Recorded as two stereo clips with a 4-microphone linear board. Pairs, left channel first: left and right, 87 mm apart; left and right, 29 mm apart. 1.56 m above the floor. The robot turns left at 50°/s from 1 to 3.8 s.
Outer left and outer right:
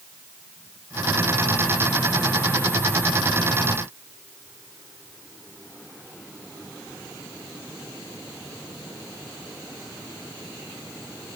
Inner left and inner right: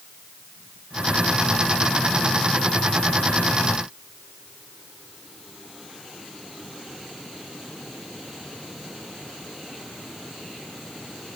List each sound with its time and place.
Only background noise.